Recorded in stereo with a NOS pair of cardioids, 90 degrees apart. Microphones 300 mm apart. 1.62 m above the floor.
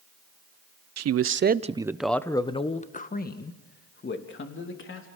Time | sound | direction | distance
1.0 | a man speaking | 60° right | 1.0 m